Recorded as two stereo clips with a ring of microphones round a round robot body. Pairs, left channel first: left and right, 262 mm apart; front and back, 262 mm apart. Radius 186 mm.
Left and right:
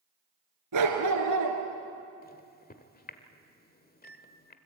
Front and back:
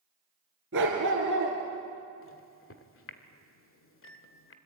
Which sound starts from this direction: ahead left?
A microwave, at 2.2 s.